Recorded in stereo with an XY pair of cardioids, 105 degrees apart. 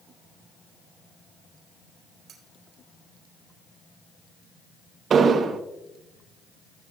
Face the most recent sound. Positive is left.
turn(degrees=-50)